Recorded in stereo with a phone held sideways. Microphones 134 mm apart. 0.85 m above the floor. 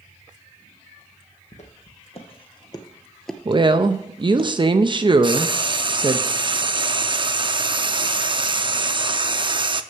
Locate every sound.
1.5 s footsteps: 60° left (ahead or behind), 1.8 m; by 4.5 s 50° right (ahead or behind), 1.3 m
3.5 s a woman speaking: 35° right (ahead or behind), 0.5 m
5.2 s frying: 40° right (ahead or behind), 0.5 m